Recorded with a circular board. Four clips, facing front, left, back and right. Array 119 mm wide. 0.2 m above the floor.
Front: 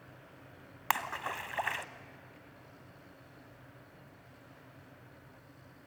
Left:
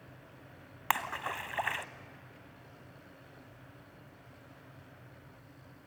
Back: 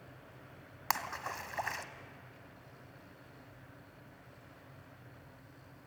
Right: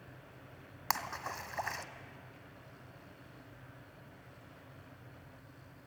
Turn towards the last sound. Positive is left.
turn(degrees=60)